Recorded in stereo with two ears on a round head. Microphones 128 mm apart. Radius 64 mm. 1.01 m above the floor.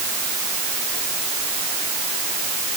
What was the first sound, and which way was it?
Only background noise.